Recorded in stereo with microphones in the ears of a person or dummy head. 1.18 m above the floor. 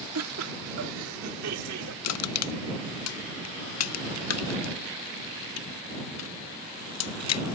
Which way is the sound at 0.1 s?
80° right.